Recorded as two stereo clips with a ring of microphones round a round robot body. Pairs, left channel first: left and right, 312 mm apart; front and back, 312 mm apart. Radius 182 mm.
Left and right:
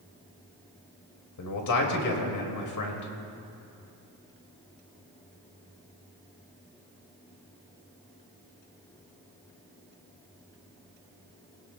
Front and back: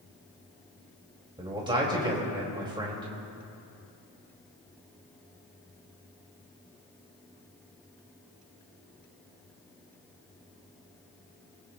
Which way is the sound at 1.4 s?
105° left.